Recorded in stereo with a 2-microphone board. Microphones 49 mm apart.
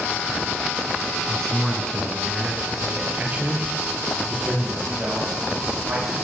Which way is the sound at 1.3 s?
15° left (ahead or behind).